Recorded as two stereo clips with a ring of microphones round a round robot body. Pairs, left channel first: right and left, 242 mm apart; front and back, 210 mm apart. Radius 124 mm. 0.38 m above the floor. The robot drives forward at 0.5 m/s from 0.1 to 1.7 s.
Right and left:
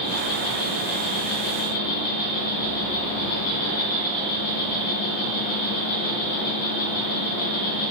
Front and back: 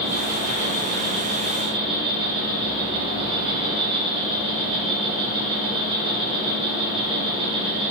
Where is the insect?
95° right, 3 m; by 7.9 s 110° right, 3 m.